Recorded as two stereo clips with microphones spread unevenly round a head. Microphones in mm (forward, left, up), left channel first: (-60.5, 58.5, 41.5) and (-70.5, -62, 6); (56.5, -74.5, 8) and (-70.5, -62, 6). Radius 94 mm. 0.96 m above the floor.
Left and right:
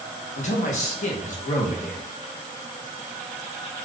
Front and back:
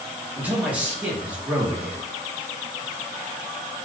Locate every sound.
0.4 s a man speaking: 100° left, 0.8 m